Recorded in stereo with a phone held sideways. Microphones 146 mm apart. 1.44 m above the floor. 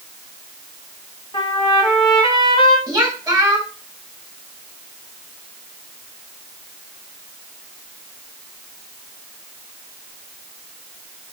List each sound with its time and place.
1.3 s a trumpet: 30° left (ahead or behind), 2.5 m
2.9 s a woman speaking: 15° right (ahead or behind), 3 m